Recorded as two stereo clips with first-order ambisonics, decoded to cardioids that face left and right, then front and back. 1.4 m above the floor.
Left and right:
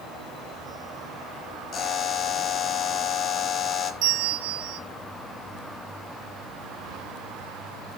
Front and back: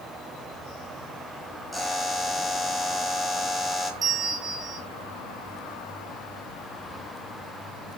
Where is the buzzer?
90° left, 1.3 m.